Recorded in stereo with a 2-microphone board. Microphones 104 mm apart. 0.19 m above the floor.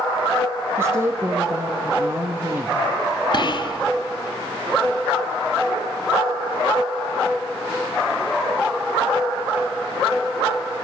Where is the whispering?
45° left (ahead or behind), 2 m.